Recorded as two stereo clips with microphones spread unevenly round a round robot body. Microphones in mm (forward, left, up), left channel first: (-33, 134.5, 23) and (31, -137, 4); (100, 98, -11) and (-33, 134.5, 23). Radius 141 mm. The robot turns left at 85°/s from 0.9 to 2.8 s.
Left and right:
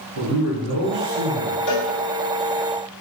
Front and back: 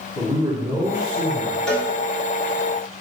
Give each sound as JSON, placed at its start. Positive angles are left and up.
{"t": 0.1, "sound": "a man speaking", "azimuth_deg": -110, "distance_m": 1.9}
{"t": 1.7, "sound": "a cowbell", "azimuth_deg": 75, "distance_m": 1.3}